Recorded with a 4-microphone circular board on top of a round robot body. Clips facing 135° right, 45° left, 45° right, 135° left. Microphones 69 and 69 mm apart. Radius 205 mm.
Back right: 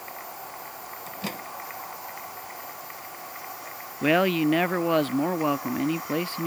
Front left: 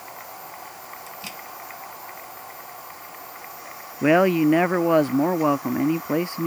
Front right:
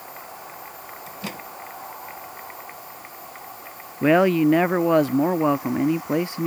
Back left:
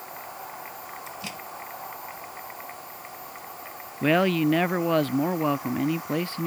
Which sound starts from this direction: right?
A microwave, at 1.1 s.